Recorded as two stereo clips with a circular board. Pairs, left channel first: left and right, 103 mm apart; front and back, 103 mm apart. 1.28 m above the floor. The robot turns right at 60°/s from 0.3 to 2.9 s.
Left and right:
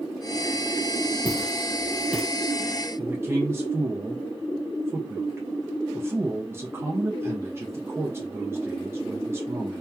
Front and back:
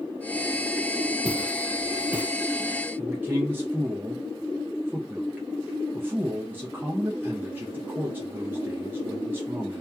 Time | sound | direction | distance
1.2 | footsteps | 90° left | 1.4 m
3.0 | a man speaking | 130° right | 0.5 m